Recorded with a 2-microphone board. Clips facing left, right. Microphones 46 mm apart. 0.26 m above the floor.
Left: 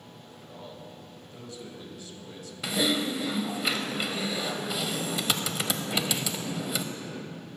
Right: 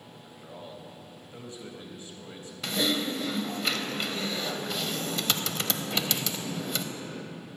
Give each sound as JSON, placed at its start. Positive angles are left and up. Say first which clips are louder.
{"t": 0.2, "sound": "a man speaking", "louder": "right 1 dB", "side_deg": -25, "distance_m": 1.1}
{"t": 2.6, "sound": "typing on a keyboard", "louder": "left 1 dB", "side_deg": 5, "distance_m": 0.6}